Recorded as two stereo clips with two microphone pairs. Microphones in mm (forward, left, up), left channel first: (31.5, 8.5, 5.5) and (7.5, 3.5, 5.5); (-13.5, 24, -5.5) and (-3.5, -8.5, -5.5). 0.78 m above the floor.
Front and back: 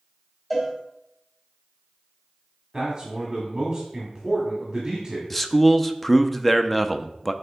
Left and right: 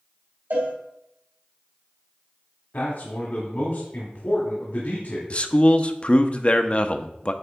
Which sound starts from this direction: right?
A cowbell, at 0.5 s.